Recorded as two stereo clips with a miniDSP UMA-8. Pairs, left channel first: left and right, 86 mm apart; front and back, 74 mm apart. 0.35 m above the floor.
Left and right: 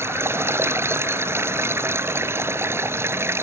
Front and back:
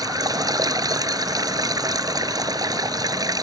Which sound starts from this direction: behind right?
Running water, at 0.0 s.